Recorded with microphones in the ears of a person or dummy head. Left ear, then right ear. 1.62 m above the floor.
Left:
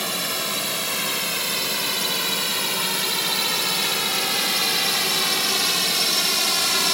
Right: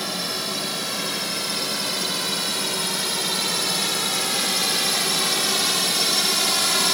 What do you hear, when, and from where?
0.0 s a drone: 30° left (ahead or behind); by 7.0 s centre (ahead or behind)